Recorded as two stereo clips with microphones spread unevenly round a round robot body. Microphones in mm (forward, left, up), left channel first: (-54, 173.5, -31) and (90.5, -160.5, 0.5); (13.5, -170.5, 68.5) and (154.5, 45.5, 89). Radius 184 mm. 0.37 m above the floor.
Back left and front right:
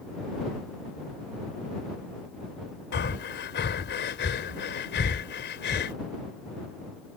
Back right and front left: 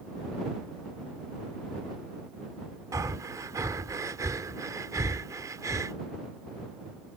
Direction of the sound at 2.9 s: 135° left.